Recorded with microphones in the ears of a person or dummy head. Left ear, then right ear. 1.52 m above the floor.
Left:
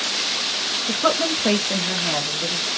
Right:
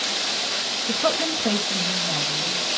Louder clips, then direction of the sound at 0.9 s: Left 2 dB; 5° right (ahead or behind).